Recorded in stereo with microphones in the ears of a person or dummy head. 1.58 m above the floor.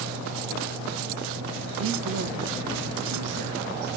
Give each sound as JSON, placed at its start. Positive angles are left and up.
{"t": 1.8, "sound": "a woman speaking", "side_deg": -75, "distance_m": 1.2}